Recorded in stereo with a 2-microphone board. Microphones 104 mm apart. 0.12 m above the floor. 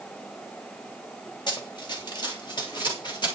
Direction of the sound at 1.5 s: 45° left (ahead or behind).